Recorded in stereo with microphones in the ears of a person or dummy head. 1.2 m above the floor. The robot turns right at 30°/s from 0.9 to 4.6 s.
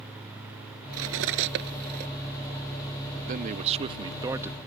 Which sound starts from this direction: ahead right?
A man speaking, at 3.3 s.